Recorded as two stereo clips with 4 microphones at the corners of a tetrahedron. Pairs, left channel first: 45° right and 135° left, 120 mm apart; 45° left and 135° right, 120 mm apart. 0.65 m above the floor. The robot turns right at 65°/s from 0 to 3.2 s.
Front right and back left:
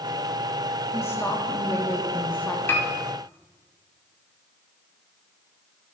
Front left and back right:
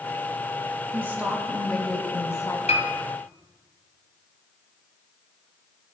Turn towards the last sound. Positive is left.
turn(degrees=60)